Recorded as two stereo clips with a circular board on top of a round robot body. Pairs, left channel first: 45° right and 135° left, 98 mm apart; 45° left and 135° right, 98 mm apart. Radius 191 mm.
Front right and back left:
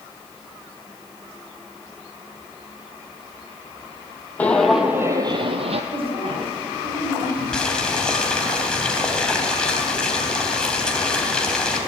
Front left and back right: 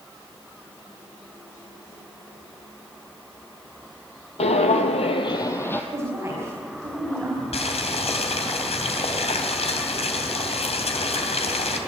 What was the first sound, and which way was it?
Footsteps, 30° left.